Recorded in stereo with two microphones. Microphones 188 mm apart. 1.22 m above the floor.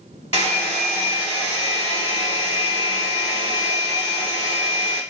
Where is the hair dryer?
35° left (ahead or behind), 1.0 m.